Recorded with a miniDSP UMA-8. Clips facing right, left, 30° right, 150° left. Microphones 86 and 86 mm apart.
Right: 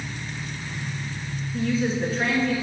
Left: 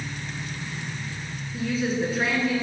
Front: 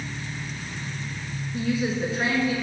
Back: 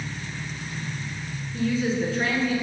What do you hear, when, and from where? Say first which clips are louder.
0.0 s an engine running: even, even; 5° left, 1.7 m
1.5 s a woman speaking: right 2 dB, back 1 dB; 10° left, 1.1 m